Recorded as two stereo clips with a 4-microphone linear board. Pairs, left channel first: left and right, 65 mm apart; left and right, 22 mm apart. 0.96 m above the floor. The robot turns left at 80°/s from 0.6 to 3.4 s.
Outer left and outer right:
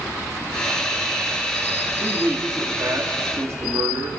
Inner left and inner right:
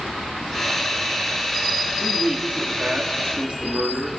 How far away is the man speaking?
About 1.7 m.